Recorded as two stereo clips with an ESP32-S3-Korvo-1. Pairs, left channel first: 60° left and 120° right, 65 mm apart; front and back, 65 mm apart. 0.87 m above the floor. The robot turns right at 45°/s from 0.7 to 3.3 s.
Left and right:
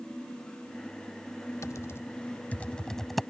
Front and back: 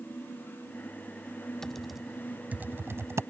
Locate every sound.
1.6 s typing on a keyboard: 80° left; by 3.2 s 155° left